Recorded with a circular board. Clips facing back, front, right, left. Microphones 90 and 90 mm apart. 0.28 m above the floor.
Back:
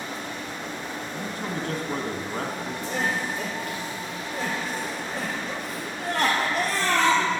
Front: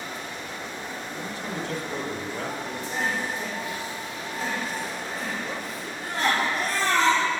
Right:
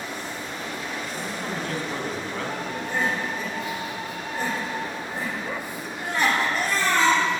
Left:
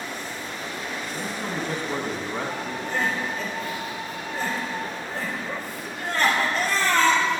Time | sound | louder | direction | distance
1.1 | a man speaking | back 2 dB, left 3 dB | 160° left | 1.8 m
2.9 | crying | back 1 dB, even | 165° right | 3 m